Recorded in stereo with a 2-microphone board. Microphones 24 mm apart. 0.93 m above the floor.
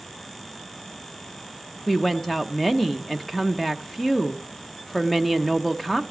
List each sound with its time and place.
1.9 s a woman speaking: 15° left (ahead or behind), 0.8 m